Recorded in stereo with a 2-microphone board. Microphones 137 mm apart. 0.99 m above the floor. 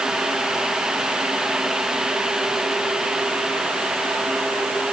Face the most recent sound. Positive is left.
No sound to turn to.